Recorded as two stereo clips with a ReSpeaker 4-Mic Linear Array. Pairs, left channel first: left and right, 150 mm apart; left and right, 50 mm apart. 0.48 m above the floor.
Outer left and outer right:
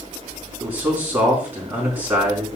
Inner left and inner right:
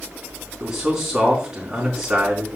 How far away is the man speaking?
About 4 m.